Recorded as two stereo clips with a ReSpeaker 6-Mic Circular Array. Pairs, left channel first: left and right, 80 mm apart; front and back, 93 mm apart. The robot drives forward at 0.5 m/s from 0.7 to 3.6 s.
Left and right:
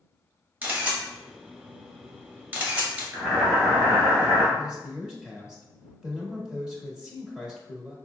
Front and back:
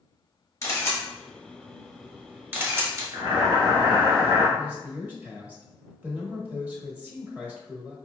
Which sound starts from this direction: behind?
Boiling, at 3.1 s.